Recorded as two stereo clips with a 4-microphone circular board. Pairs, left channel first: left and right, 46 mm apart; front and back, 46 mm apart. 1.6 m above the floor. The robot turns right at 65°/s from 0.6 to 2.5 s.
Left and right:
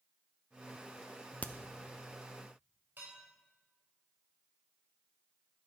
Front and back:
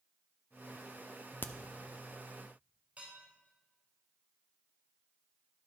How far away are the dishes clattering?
About 4.5 m.